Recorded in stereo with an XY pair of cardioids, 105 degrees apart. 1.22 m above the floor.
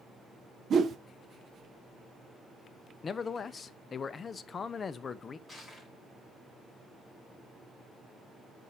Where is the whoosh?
50° right, 0.8 m.